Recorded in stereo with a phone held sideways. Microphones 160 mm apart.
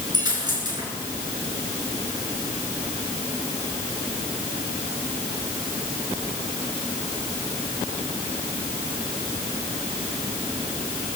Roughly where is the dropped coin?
Right.